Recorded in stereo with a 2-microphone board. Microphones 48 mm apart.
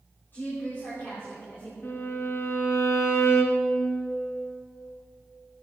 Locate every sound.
0.3 s a woman speaking: 50° left (ahead or behind), 4.5 m; by 1.7 s 60° left (ahead or behind), 5 m
1.8 s a violin: 45° left (ahead or behind), 1.5 m